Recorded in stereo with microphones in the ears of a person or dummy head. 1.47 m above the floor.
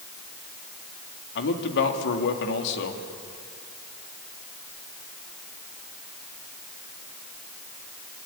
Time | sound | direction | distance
1.4 | a man speaking | 65° left (ahead or behind) | 2.5 m